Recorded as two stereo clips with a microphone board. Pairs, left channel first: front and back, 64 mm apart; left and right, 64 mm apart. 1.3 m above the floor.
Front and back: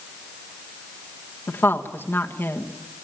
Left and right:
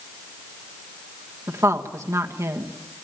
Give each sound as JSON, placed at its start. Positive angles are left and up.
{"t": 1.5, "sound": "a woman speaking", "azimuth_deg": -55, "distance_m": 1.5}